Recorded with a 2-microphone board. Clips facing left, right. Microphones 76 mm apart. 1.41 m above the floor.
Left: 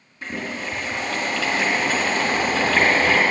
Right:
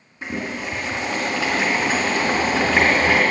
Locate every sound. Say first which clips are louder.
0.2 s boiling: right 2 dB; 20° right (ahead or behind), 3 m